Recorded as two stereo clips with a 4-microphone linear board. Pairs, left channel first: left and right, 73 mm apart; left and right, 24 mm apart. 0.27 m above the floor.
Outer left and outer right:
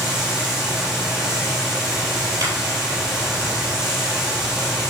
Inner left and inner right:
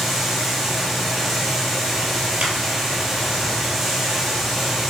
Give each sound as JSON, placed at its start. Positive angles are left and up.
{"t": 0.0, "sound": "running water", "side_deg": -10, "distance_m": 6.5}
{"t": 2.4, "sound": "a clap", "side_deg": -50, "distance_m": 6.0}